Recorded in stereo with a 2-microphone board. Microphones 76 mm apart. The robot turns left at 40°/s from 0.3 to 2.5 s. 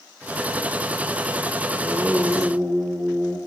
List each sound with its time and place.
1.7 s singing: 15° right, 6 m; by 3.4 s 45° right, 6 m